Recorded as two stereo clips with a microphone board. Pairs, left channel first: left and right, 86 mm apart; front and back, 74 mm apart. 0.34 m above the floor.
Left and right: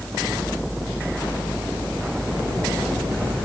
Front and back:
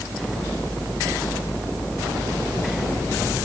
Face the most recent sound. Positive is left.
No sound to turn to.